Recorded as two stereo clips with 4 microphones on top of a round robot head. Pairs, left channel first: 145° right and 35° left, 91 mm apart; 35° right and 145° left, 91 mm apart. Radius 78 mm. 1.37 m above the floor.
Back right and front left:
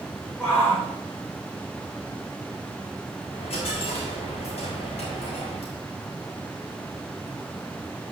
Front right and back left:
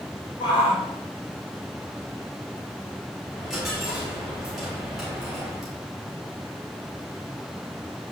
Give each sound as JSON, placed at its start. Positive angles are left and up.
{"t": 0.4, "sound": "a shout", "azimuth_deg": -75, "distance_m": 4.5}
{"t": 3.3, "sound": "a dropped coin", "azimuth_deg": -125, "distance_m": 3.0}